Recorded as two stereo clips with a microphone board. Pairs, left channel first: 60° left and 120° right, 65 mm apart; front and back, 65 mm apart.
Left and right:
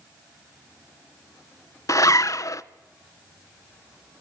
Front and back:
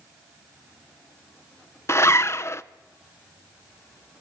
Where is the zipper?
40° left, 0.5 m.